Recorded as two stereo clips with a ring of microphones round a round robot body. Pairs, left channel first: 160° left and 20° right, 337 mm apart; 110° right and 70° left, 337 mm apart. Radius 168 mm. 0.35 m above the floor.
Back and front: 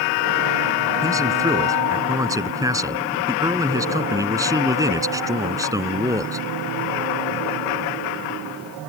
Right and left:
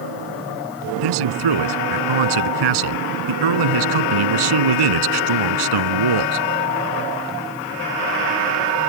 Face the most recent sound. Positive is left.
turn(degrees=60)